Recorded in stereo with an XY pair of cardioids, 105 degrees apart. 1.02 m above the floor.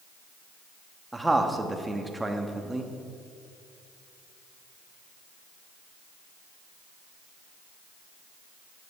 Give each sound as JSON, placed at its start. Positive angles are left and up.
{"t": 1.1, "sound": "a man speaking", "azimuth_deg": -10, "distance_m": 1.2}